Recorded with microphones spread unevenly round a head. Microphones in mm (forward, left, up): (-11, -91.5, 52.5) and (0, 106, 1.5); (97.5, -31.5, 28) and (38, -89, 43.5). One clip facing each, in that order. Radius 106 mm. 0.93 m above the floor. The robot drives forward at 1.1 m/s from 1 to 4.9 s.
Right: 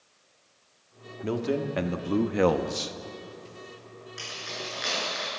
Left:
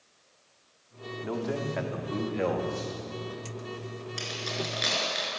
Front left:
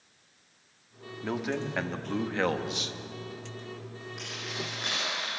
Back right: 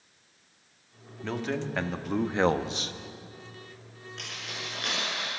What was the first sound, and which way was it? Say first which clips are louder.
A man speaking: right 4 dB, even; 35° right.